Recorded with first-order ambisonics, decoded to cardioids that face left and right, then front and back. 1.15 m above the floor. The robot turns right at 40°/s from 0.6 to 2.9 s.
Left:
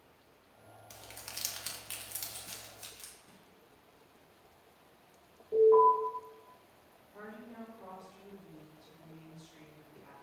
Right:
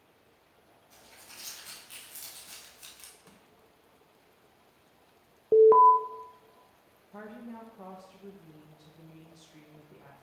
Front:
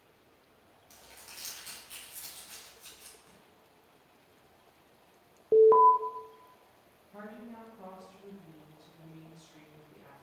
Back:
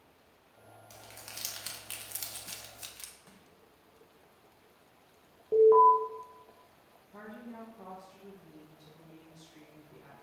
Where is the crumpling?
100° left, 1.3 m; by 3.1 s straight behind, 1.3 m.